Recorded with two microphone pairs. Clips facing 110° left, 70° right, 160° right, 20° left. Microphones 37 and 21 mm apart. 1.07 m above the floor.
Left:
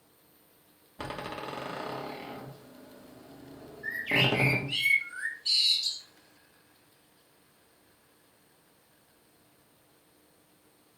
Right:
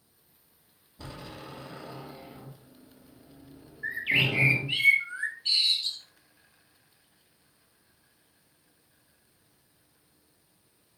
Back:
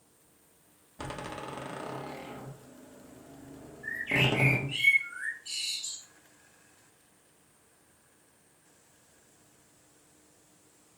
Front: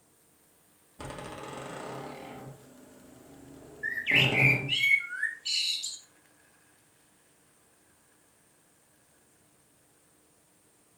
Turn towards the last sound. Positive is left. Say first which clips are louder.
# right 1 dB, front 3 dB
turn(degrees=-20)